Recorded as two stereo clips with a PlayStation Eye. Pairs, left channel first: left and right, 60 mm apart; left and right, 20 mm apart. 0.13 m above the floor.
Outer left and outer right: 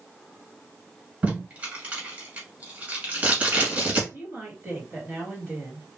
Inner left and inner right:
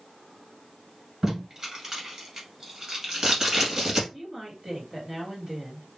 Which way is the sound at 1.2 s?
25° right (ahead or behind).